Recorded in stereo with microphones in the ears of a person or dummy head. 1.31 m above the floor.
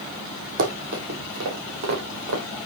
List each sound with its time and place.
0.6 s running footsteps: 60° right (ahead or behind), 2.5 m; by 2.4 s 75° right (ahead or behind), 4.5 m